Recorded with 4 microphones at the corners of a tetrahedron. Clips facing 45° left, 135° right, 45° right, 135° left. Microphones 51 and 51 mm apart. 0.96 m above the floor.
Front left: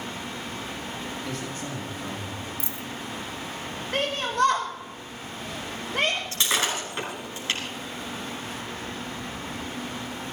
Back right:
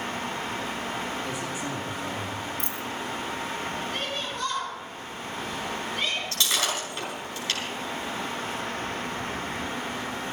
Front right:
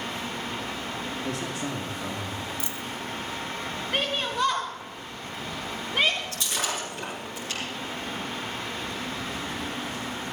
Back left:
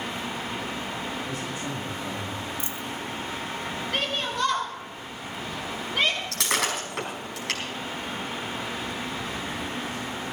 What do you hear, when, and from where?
1.2 s a man speaking: 55° right, 2.5 m
2.6 s a dropped coin: 165° right, 0.8 m
3.9 s a shout: 30° left, 1.3 m
6.3 s breaking glass: 110° left, 4.5 m